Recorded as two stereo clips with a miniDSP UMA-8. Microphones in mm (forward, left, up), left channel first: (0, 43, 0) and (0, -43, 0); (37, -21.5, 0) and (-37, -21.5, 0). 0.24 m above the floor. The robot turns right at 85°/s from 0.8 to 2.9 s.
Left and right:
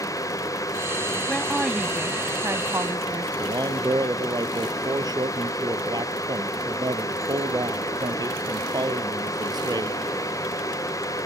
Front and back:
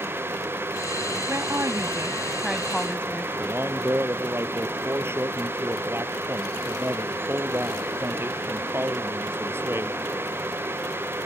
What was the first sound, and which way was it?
A woman speaking, 155° left.